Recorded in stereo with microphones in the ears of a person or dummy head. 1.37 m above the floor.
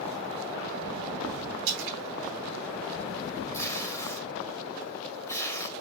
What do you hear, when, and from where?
1.7 s a splash: 60° right (ahead or behind), 2 m
3.5 s tape being pulled: 15° left (ahead or behind), 2.5 m